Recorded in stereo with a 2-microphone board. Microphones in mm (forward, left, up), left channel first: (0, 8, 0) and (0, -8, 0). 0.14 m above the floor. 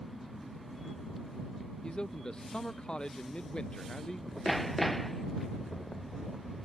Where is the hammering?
10° left (ahead or behind).